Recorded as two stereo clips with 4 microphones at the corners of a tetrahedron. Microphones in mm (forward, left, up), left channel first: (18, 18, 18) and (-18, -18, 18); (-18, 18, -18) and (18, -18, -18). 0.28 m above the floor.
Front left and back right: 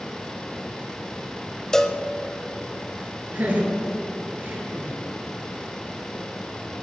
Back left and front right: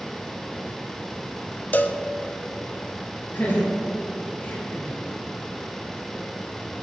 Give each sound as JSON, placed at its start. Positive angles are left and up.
{"t": 1.7, "sound": "a cowbell", "azimuth_deg": 120, "distance_m": 0.7}
{"t": 3.3, "sound": "laughter", "azimuth_deg": 180, "distance_m": 4.0}